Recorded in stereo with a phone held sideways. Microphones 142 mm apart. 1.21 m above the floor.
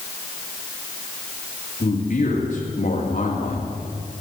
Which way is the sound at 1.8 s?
60° left (ahead or behind).